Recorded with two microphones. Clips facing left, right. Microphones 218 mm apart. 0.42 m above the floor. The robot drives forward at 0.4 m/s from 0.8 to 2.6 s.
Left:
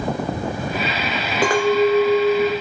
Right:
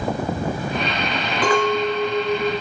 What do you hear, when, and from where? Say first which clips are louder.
1.4 s a clink: left 4 dB; 50° left (ahead or behind), 0.9 m; by 2.5 s 55° left (ahead or behind), 0.9 m